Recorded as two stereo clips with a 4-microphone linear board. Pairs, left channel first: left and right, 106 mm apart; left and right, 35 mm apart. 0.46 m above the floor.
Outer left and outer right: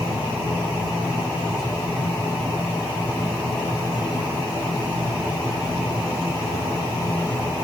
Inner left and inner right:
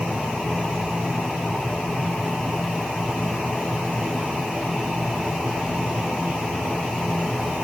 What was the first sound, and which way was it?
Only background noise.